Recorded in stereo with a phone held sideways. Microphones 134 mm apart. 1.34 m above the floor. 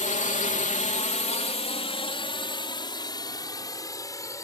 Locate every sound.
0.0 s a drone: 65° left (ahead or behind); by 4.4 s 25° left (ahead or behind)